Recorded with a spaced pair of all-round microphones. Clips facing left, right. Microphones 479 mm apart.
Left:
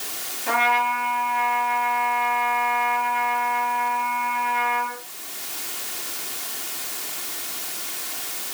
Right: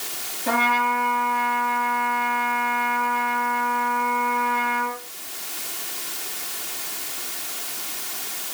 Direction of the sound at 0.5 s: 65° right (ahead or behind).